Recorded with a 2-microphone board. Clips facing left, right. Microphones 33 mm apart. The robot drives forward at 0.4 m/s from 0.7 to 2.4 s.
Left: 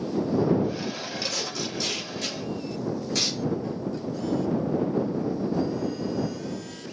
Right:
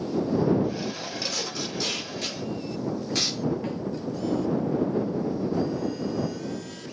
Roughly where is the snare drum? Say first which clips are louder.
Right 1 dB; right.